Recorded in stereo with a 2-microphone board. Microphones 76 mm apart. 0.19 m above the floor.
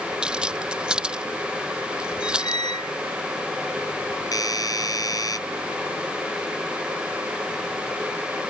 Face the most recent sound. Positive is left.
turn(degrees=55)  # may be behind; listen again after turning